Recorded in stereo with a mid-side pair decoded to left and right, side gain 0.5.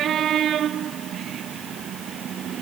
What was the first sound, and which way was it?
Only background noise.